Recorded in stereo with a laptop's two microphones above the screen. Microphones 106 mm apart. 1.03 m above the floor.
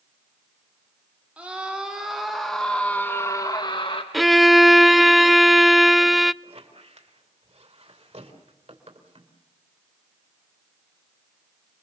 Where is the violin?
Centre (ahead or behind), 0.6 m.